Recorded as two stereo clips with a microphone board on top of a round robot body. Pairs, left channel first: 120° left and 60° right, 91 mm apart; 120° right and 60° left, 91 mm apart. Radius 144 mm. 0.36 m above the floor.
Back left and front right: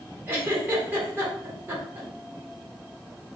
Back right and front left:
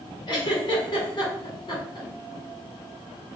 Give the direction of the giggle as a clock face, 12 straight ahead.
4 o'clock.